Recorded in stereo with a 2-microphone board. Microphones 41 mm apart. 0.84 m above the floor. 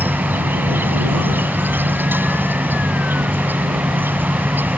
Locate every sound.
0.0 s an insect: 55° right (ahead or behind)